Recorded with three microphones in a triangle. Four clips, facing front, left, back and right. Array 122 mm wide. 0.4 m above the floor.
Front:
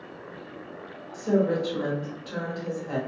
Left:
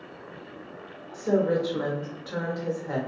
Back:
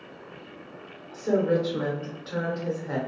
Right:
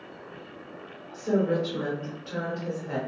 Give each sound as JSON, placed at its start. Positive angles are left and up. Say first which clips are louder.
{"t": 1.1, "sound": "a woman speaking", "louder": "left 2 dB, even", "azimuth_deg": 130, "distance_m": 0.8}